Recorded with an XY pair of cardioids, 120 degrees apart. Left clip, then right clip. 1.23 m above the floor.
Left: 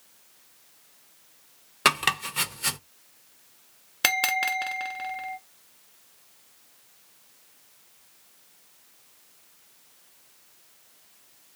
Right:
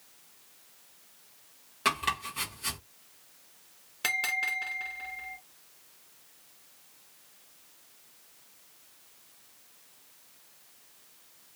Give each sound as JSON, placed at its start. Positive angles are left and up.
{"t": 1.9, "sound": "chopping", "azimuth_deg": 55, "distance_m": 1.3}
{"t": 4.0, "sound": "a bell", "azimuth_deg": 55, "distance_m": 1.0}